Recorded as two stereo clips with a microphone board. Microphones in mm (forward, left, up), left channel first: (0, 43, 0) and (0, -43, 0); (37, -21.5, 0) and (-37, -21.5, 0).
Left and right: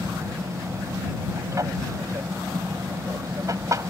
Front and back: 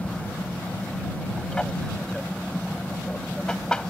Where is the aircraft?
75° right.